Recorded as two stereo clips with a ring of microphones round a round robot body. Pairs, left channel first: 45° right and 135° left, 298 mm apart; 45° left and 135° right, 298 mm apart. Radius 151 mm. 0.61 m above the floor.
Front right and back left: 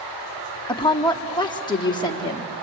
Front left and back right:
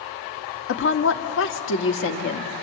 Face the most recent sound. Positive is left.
turn(degrees=25)